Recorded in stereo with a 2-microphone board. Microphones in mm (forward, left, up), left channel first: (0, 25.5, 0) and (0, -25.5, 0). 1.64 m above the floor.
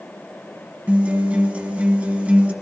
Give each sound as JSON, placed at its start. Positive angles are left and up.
{"t": 0.9, "sound": "a guitar", "side_deg": -30, "distance_m": 1.0}